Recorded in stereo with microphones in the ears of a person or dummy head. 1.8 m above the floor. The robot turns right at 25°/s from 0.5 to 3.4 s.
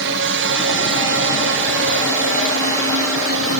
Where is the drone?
60° right (ahead or behind); by 3.6 s 70° right (ahead or behind).